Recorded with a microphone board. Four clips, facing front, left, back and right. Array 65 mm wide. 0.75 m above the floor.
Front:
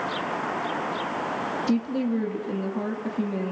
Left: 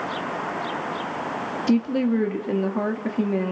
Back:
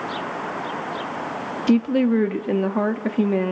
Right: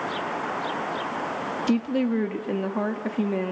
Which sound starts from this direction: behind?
A woman speaking, at 1.7 s.